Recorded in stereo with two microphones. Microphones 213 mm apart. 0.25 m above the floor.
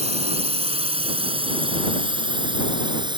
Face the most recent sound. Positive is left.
turn(degrees=-20)  # may be behind; listen again after turning